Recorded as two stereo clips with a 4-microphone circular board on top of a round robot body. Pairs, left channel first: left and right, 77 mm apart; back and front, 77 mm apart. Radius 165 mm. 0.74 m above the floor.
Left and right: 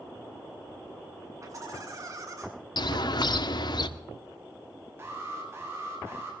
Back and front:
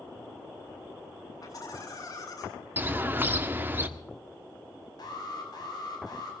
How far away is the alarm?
About 7 m.